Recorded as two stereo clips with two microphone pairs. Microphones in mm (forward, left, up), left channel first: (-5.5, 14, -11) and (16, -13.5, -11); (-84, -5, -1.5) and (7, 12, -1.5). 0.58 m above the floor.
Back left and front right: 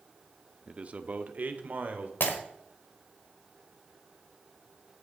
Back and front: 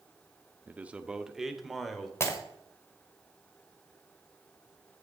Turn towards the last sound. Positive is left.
turn(degrees=130)